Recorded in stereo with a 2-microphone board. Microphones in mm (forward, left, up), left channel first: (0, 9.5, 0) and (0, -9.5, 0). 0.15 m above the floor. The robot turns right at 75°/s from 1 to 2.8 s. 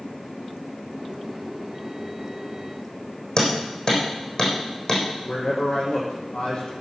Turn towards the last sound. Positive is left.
turn(degrees=80)